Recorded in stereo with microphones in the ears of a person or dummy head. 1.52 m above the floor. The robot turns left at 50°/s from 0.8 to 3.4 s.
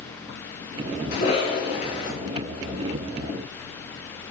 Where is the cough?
70° left, 1.6 m; by 2.1 s 20° left, 1.6 m.